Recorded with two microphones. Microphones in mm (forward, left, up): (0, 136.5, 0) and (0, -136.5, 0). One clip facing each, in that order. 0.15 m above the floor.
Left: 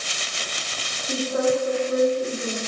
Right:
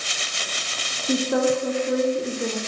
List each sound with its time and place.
1.0 s a woman speaking: 80° right, 8.5 m